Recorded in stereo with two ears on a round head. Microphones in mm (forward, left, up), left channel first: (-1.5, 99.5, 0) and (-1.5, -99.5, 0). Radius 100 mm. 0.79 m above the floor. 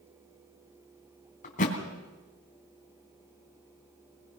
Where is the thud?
35° left (ahead or behind), 3 m.